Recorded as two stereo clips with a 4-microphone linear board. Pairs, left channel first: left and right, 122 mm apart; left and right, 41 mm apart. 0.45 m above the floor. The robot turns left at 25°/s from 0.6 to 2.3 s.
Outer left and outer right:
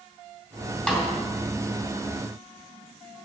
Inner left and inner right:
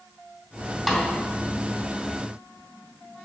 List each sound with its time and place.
0.9 s a snare drum: 5° left (ahead or behind), 2.5 m; by 1.1 s centre (ahead or behind), 2.5 m